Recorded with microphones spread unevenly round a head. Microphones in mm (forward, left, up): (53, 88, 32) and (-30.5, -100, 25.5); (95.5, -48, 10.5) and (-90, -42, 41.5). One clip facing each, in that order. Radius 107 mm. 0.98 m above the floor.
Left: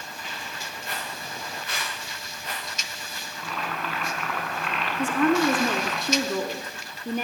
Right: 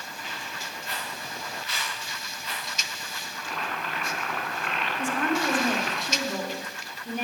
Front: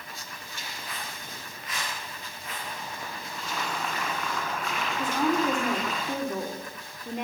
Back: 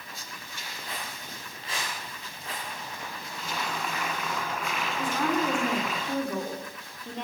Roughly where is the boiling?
Left.